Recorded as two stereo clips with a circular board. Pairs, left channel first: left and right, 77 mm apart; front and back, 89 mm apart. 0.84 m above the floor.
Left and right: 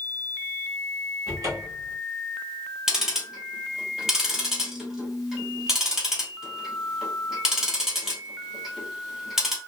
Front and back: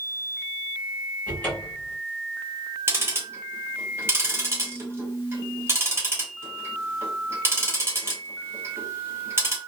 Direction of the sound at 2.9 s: 165° right.